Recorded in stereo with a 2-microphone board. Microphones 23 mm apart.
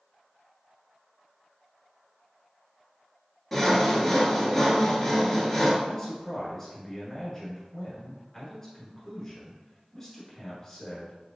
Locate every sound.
3.5 s sawing: 10° left (ahead or behind), 0.9 m
5.8 s a man speaking: 20° left (ahead or behind), 1.3 m